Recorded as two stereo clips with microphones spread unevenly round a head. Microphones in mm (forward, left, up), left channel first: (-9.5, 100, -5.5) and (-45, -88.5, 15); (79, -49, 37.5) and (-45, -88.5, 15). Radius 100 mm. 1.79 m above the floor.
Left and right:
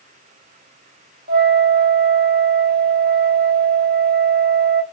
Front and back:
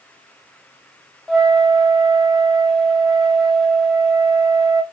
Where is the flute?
65° right, 0.6 m.